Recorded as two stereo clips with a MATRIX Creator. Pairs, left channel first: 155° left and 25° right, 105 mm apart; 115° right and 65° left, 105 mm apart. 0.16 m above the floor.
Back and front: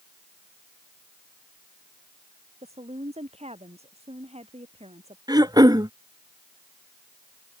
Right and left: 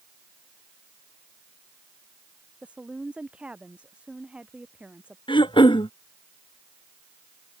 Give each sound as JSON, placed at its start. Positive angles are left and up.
{"t": 2.6, "sound": "a woman speaking", "azimuth_deg": -10}
{"t": 5.3, "sound": "throat clearing", "azimuth_deg": -75}